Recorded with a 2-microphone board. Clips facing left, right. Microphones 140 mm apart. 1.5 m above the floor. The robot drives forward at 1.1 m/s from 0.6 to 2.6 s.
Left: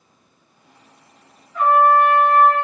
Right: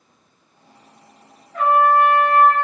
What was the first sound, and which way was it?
A trumpet, 75° right (ahead or behind).